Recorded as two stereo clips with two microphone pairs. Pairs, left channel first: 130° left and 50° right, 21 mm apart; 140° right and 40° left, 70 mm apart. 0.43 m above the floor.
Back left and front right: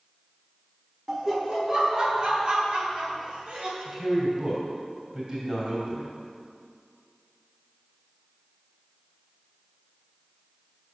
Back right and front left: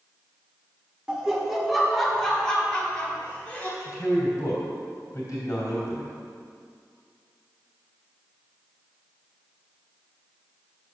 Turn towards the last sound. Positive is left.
turn(degrees=-100)